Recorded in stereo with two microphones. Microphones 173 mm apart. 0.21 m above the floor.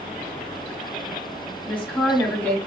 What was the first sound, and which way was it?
A woman speaking, 5° left (ahead or behind).